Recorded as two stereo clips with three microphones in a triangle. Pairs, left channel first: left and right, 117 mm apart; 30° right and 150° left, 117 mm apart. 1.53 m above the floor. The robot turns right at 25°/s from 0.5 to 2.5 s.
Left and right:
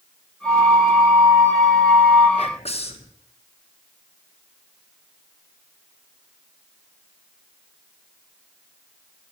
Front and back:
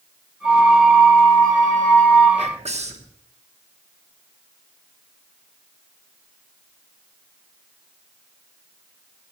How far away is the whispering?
About 1.4 m.